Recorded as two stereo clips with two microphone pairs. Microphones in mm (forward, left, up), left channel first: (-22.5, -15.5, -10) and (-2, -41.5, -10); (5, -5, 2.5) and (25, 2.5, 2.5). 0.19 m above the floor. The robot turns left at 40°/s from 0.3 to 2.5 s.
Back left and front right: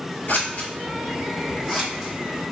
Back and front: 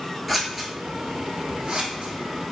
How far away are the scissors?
About 1.0 m.